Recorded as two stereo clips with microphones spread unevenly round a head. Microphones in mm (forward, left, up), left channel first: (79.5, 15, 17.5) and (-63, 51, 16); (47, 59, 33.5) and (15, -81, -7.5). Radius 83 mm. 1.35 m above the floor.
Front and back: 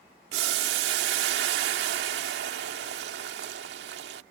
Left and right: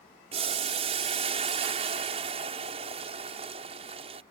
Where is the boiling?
165° right.